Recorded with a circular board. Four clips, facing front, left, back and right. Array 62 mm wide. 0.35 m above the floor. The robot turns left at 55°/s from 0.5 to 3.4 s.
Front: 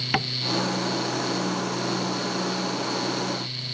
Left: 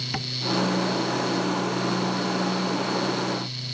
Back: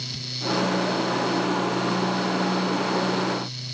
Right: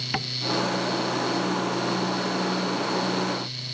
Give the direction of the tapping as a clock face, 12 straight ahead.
12 o'clock.